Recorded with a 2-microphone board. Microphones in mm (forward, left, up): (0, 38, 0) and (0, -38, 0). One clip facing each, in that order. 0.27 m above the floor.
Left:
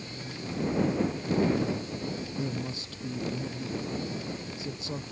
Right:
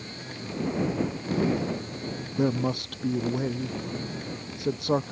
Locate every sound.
2.4 s a man speaking: 60° right (ahead or behind)